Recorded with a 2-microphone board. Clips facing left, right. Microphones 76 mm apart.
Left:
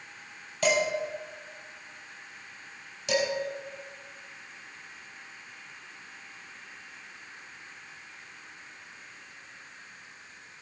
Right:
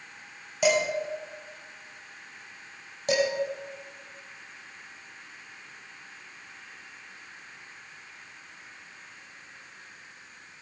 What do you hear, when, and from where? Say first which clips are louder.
0.6 s dishes clattering: right 2 dB; 10° right (ahead or behind), 4 m
3.1 s dishes clattering: right 3 dB; 45° right (ahead or behind), 4 m